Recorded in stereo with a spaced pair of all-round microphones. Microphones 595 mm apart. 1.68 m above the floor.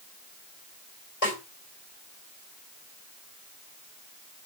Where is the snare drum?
70° left (ahead or behind), 4.5 m.